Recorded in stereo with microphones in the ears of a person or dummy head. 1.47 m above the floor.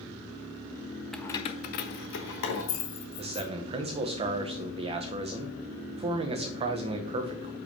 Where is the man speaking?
30° right (ahead or behind), 1.0 m.